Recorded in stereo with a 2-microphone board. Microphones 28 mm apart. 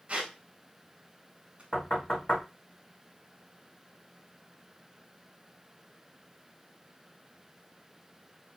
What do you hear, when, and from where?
0.1 s a squeak: 40° right (ahead or behind), 0.9 m
1.7 s knocking: 50° left (ahead or behind), 1.6 m